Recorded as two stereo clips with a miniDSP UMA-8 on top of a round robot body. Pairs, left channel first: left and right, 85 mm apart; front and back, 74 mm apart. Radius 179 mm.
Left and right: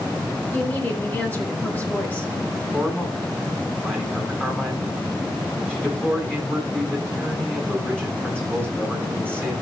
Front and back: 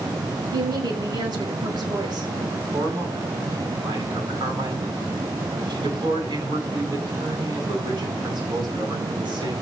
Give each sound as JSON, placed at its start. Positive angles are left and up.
{"t": 0.5, "sound": "a woman speaking", "azimuth_deg": 160, "distance_m": 5.5}
{"t": 2.7, "sound": "a man speaking", "azimuth_deg": 170, "distance_m": 8.5}